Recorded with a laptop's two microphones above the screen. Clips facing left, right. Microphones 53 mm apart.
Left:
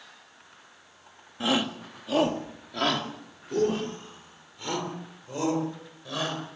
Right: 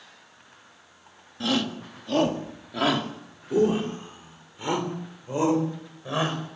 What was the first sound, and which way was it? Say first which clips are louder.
A shout: even; 20° left (ahead or behind).